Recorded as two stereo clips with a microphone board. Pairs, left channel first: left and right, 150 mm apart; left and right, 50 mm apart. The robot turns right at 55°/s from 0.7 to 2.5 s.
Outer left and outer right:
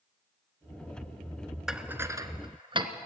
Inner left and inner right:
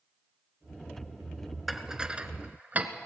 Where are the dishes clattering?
5° right (ahead or behind), 1.0 m; by 2.9 s 35° right (ahead or behind), 1.0 m.